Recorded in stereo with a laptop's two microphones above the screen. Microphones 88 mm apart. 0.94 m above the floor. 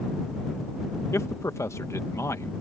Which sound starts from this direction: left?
A man speaking, at 1.1 s.